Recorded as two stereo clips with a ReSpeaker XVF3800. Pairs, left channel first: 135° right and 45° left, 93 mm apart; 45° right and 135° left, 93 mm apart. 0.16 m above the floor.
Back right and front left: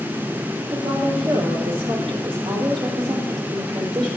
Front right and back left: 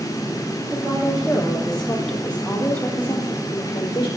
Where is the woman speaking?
55° left, 5.5 m; by 4.1 s 5° left, 5 m.